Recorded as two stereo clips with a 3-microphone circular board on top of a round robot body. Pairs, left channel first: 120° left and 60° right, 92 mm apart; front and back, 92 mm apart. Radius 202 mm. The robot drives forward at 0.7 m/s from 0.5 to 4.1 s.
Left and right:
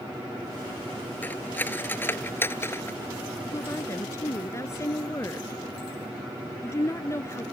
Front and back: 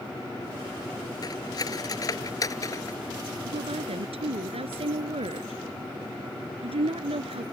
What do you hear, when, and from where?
1.2 s cutlery clinking: 50° left; by 3.0 s 55° left
3.5 s a woman speaking: straight behind